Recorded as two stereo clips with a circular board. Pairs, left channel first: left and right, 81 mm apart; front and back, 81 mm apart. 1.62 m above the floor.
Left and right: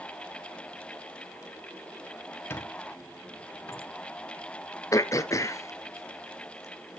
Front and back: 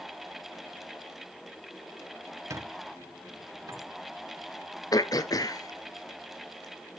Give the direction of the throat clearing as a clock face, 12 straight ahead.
11 o'clock.